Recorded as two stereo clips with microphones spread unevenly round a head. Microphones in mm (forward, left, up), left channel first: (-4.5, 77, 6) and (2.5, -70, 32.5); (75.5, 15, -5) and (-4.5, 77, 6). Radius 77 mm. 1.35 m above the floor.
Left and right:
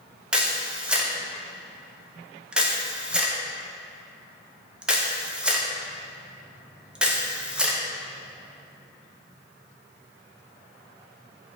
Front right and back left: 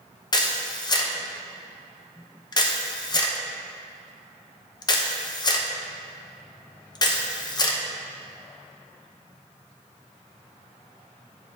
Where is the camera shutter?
Straight ahead, 0.8 m.